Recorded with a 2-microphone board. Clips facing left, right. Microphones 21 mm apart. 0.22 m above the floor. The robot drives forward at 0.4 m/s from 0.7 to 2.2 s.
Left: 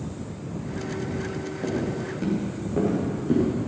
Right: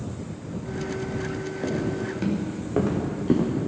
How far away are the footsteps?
About 4.5 m.